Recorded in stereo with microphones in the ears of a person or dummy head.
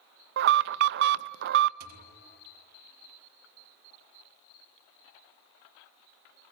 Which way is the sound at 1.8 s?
50° right (ahead or behind).